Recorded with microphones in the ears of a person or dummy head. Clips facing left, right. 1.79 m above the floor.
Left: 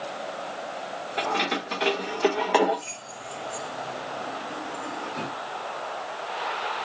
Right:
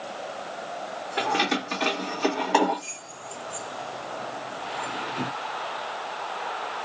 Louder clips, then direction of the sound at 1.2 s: Right 2 dB; 5° right (ahead or behind).